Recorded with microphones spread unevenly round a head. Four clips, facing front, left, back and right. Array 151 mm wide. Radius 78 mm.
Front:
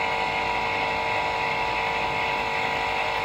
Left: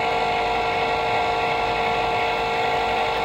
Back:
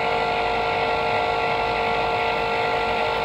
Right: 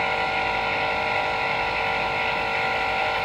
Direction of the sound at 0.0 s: 135° left.